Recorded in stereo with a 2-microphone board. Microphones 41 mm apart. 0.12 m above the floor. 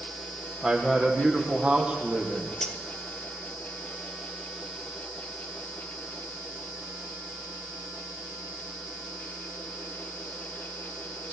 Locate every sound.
0.6 s a man speaking: 10° right (ahead or behind), 6 m; by 2.5 s 30° right (ahead or behind), 6.5 m
2.6 s cutlery clinking: 10° left (ahead or behind), 1.9 m